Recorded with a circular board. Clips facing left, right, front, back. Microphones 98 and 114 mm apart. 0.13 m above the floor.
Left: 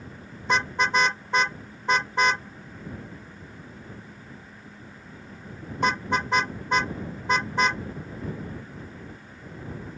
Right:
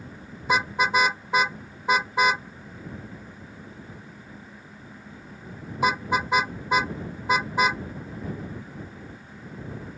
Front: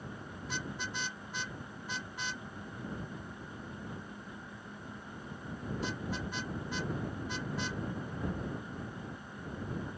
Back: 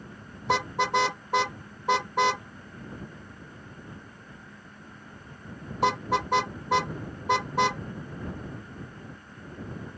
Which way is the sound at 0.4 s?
175° right.